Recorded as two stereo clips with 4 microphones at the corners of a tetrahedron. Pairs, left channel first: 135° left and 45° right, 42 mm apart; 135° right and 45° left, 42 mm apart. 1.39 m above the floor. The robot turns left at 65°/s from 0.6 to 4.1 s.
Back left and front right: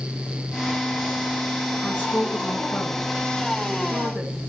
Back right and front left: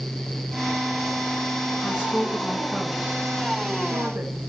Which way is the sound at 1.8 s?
165° right.